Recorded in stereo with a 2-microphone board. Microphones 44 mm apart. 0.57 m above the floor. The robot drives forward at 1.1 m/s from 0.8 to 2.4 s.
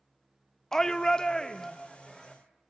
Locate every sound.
0.7 s a shout: 10° left (ahead or behind), 0.6 m; by 2.4 s 5° left (ahead or behind), 1.5 m